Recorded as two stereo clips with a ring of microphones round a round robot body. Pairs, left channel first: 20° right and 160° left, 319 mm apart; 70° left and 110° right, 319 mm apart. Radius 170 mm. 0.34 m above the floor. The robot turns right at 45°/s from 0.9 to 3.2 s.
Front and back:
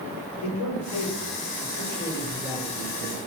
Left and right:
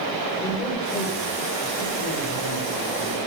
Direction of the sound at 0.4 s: 5° right.